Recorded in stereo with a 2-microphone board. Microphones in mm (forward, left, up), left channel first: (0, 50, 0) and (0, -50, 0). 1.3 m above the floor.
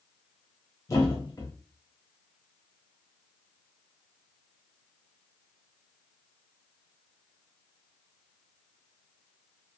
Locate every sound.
0.9 s a thud: 35° left (ahead or behind), 1.4 m